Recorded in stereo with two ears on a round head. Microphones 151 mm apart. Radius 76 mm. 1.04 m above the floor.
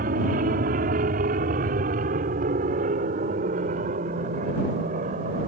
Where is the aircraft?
55° right (ahead or behind); by 5.5 s 45° right (ahead or behind).